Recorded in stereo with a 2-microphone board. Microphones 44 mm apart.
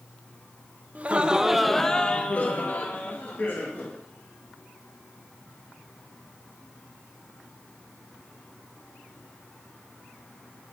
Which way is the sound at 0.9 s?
35° right (ahead or behind).